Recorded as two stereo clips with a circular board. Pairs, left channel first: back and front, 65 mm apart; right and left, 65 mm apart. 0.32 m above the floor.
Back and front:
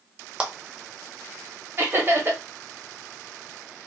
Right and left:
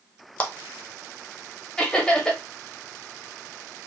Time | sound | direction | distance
0.4 | a clap | 50° right | 0.7 m
1.8 | laughter | 20° right | 1.2 m